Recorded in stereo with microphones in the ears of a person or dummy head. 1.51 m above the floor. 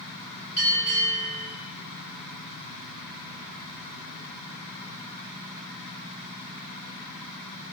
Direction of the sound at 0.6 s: 15° left (ahead or behind).